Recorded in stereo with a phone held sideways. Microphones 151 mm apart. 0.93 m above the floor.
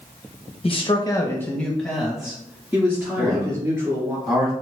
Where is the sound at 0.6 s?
40° left (ahead or behind), 0.8 m; by 4.2 s 20° right (ahead or behind), 2.5 m.